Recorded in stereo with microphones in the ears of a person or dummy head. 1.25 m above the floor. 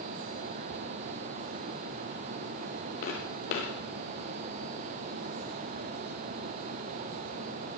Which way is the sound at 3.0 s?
30° left (ahead or behind).